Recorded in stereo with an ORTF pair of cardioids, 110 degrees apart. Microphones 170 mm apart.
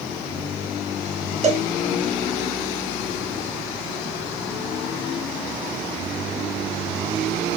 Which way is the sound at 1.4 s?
40° right.